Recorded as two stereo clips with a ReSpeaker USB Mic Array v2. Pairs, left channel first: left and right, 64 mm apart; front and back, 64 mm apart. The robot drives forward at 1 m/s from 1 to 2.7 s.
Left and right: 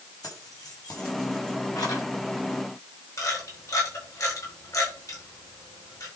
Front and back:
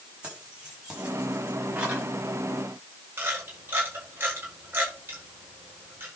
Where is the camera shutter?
125° left, 5.5 m.